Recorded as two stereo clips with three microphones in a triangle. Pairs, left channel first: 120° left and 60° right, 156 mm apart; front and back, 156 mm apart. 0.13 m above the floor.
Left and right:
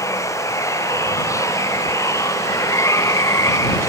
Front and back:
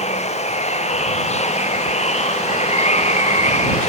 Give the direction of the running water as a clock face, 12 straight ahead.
10 o'clock.